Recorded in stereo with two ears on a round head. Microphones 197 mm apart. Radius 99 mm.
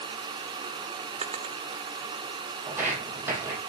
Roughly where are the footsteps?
Centre.